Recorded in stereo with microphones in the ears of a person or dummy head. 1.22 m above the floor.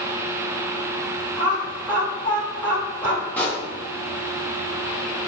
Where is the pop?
5° left (ahead or behind), 0.8 m.